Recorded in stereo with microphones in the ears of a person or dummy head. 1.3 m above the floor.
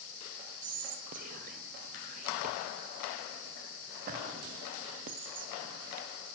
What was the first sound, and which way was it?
Whispering, 50° right (ahead or behind).